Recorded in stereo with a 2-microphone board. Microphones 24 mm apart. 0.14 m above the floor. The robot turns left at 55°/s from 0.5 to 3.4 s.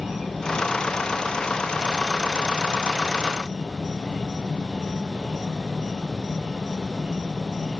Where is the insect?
20° right, 2 m; by 7.8 s 175° right, 2 m.